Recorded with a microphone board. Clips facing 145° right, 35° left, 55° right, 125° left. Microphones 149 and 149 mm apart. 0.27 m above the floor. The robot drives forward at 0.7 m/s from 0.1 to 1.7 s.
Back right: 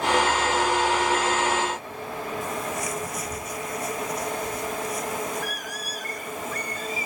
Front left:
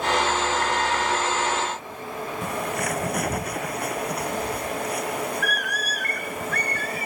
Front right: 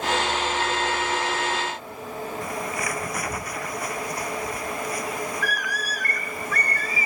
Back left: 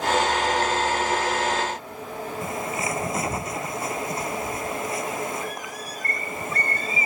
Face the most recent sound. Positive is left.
turn(degrees=60)